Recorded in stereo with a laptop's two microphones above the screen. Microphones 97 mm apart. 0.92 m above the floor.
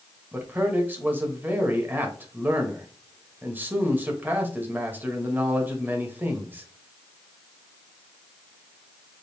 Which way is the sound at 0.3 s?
20° right (ahead or behind).